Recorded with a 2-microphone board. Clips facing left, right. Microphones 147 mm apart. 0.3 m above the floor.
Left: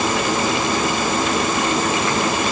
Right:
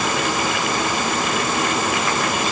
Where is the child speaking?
I don't hear a child speaking.